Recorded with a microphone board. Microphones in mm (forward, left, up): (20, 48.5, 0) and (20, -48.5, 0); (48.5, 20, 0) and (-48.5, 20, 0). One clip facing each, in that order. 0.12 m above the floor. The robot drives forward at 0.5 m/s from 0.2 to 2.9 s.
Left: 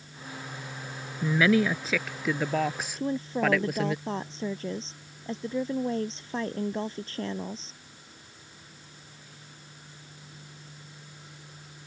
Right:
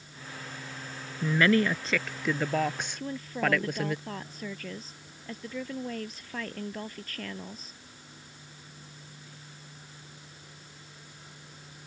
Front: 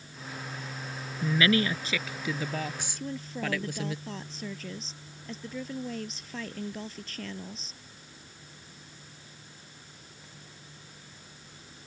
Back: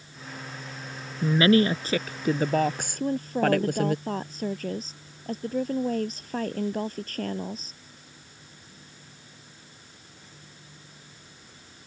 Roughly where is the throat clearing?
I don't hear throat clearing.